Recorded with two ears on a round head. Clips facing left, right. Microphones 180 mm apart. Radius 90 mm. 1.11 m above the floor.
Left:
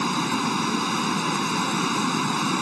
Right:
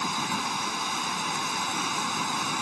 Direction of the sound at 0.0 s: 60° left (ahead or behind).